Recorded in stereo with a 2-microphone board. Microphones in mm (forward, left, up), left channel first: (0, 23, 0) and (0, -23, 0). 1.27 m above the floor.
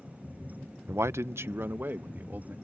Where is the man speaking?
65° right (ahead or behind); by 2.5 s 45° right (ahead or behind).